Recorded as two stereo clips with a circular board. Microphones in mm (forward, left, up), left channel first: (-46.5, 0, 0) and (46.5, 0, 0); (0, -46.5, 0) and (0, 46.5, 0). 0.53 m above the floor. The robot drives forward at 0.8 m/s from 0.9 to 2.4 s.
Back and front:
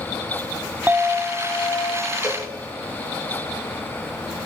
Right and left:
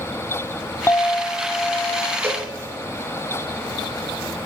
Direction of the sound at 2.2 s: 145° left.